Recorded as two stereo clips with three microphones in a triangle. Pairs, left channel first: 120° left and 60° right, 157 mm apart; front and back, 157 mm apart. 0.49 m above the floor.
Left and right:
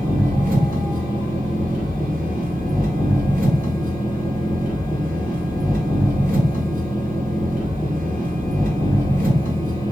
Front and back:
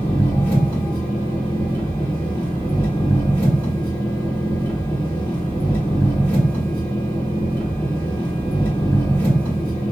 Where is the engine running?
70° right, 1.9 m.